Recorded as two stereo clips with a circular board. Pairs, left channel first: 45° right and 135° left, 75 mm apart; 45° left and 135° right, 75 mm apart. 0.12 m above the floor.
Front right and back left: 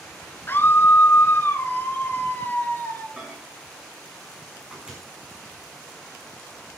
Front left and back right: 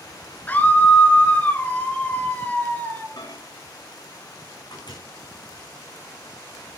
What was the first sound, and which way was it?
A scream, 5° right.